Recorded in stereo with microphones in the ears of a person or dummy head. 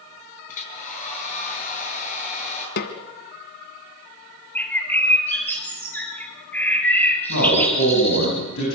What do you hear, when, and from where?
0.5 s a hair dryer: 45° left (ahead or behind), 6.5 m
2.8 s a snare drum: 50° left (ahead or behind), 1.7 m
4.5 s a bird: 10° left (ahead or behind), 4.5 m
7.3 s a man speaking: 75° left (ahead or behind), 9.5 m